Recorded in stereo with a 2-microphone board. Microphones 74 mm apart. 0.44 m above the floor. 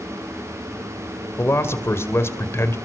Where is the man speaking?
35° left (ahead or behind), 2 m.